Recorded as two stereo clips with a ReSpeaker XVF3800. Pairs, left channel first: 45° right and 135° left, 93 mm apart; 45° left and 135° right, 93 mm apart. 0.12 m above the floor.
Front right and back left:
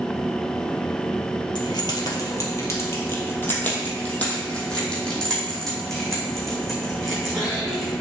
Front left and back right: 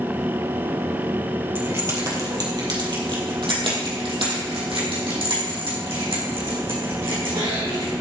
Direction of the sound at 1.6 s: 75° right.